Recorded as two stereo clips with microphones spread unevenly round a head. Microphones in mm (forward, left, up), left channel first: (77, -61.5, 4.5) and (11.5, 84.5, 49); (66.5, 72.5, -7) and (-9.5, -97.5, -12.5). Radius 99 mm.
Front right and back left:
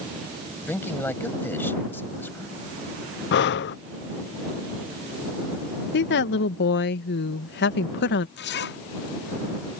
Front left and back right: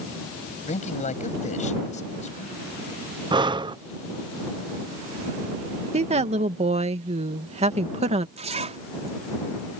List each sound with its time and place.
0.7 s a man speaking: 15° left
3.3 s breathing: 50° right
5.9 s a woman speaking: 60° right
8.4 s a zipper: 60° right